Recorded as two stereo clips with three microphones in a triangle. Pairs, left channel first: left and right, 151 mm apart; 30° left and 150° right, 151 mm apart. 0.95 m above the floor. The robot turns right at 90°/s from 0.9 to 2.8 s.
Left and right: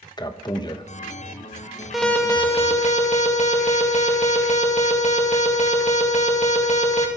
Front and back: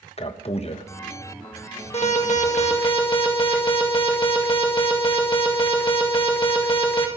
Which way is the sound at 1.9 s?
5° right.